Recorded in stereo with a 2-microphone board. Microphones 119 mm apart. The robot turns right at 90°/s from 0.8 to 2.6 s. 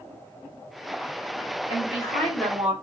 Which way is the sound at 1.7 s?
110° left.